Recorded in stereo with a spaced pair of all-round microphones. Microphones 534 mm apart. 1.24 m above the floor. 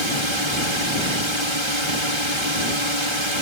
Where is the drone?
60° right (ahead or behind).